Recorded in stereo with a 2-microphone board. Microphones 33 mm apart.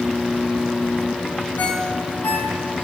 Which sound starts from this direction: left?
A ringtone, at 1.6 s.